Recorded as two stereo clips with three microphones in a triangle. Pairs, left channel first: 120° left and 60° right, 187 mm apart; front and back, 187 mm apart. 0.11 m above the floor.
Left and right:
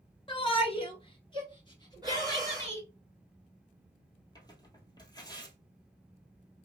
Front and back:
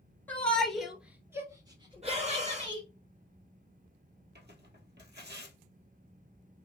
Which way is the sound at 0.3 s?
75° left.